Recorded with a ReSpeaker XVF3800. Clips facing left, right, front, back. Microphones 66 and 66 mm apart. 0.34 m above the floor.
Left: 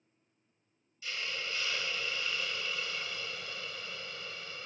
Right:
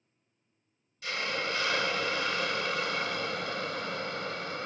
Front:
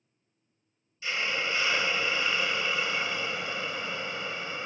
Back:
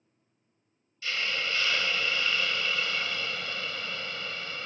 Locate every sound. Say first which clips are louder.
1.0 s a hiss: right 7 dB, front 1 dB; 70° right